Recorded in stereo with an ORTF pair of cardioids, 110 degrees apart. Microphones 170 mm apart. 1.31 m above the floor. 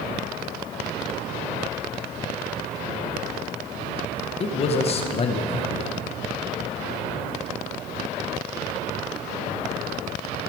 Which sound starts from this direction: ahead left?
A man speaking, at 4.4 s.